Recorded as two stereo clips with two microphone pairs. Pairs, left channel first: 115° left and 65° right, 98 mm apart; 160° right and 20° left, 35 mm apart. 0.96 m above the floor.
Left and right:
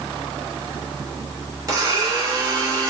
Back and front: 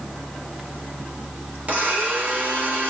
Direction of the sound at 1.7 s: 15° right.